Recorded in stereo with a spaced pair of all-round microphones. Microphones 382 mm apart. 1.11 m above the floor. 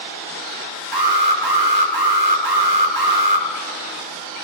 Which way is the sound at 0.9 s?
75° right (ahead or behind).